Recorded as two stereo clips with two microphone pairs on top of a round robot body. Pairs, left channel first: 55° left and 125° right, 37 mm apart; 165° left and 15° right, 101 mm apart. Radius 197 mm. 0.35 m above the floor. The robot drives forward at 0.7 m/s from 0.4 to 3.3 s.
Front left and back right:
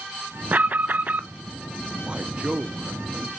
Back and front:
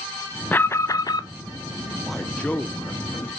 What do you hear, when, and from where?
0.5 s an alarm: 125° right, 0.9 m; by 1.3 s 155° right, 1.2 m
2.1 s a man speaking: 95° right, 1.4 m; by 3.3 s 145° right, 1.7 m